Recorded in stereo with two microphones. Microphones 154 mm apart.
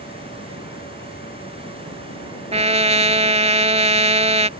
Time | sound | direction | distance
0.0 | running water | 85° left | ?
2.5 | a trumpet | 40° right (ahead or behind) | ?